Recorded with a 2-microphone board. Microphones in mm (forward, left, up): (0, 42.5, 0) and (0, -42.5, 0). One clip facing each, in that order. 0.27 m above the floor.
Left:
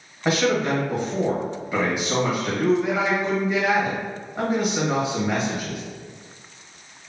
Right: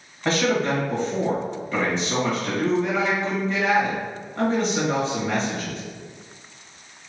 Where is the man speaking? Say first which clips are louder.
Left 1 dB; 10° left (ahead or behind), 1.5 m.